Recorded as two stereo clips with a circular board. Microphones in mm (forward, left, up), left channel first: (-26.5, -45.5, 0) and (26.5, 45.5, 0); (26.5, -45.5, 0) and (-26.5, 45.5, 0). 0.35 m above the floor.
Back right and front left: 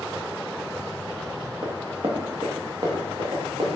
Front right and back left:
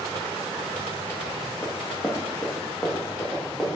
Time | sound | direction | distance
1.6 | running footsteps | 10° left | 1.3 m